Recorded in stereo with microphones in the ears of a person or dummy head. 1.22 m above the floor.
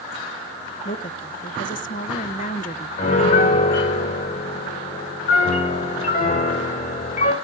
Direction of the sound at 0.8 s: 40° left (ahead or behind).